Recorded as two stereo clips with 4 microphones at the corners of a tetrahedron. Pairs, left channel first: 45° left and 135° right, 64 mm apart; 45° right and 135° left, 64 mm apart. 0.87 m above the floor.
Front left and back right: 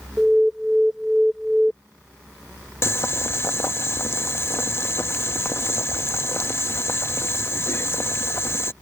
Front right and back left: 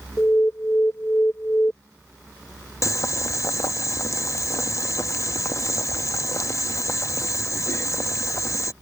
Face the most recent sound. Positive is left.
turn(degrees=-5)